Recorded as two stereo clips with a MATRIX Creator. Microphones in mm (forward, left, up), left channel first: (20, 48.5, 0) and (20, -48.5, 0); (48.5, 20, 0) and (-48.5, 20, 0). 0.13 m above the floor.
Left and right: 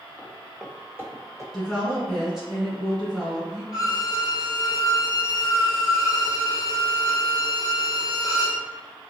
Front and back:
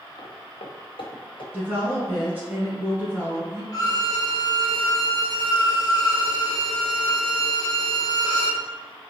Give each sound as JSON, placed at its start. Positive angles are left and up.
{"t": 0.2, "sound": "footsteps", "azimuth_deg": 25, "distance_m": 0.6}
{"t": 1.5, "sound": "a woman speaking", "azimuth_deg": -170, "distance_m": 1.3}
{"t": 3.7, "sound": "a violin", "azimuth_deg": 40, "distance_m": 0.9}